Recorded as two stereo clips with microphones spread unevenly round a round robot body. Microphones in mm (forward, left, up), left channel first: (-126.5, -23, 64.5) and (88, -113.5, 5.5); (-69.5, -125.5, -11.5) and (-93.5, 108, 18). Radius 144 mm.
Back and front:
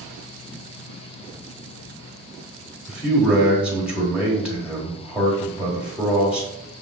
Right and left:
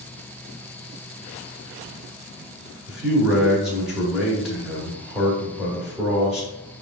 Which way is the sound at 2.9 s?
10° right.